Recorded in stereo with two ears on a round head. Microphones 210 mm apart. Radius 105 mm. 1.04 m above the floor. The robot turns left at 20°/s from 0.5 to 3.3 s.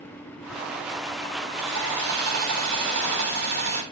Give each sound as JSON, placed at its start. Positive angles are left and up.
{"t": 1.6, "sound": "sawing", "azimuth_deg": -95, "distance_m": 4.0}